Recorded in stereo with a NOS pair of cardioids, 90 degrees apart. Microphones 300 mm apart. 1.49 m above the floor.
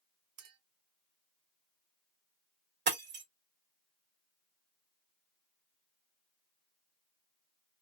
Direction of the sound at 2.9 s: 35° right.